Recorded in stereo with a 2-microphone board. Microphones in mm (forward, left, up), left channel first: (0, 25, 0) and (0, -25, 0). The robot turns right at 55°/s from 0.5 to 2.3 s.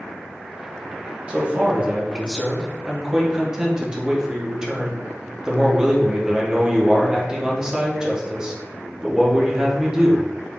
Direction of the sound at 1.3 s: 20° right (ahead or behind).